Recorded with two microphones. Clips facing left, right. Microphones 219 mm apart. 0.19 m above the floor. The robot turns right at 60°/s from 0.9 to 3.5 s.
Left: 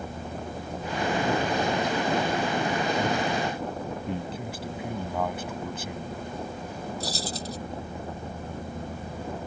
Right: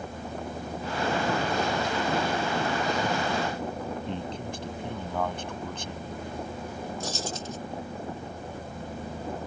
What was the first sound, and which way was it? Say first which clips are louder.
A man speaking: left 1 dB; 5° left (ahead or behind).